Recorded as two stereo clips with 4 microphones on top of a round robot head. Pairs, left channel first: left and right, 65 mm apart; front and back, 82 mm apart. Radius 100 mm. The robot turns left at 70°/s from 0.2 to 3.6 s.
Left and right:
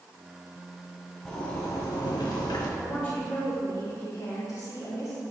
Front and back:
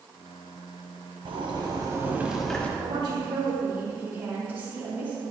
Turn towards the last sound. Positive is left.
turn(degrees=110)